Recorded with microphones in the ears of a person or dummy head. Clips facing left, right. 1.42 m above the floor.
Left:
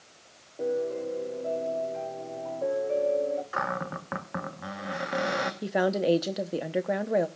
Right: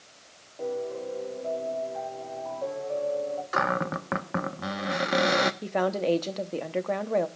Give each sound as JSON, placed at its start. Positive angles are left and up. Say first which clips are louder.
{"t": 0.6, "sound": "a piano", "louder": "left 3 dB", "side_deg": 35, "distance_m": 3.5}
{"t": 3.5, "sound": "a cupboard door", "louder": "right 5 dB", "side_deg": -55, "distance_m": 0.8}
{"t": 5.6, "sound": "a woman speaking", "louder": "left 1 dB", "side_deg": 10, "distance_m": 0.8}